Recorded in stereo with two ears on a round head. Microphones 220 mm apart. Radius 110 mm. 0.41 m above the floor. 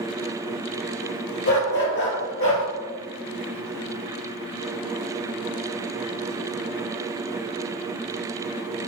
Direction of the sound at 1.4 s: 45° left (ahead or behind).